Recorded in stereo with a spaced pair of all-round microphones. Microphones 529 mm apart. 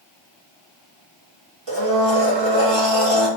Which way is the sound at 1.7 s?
55° right (ahead or behind).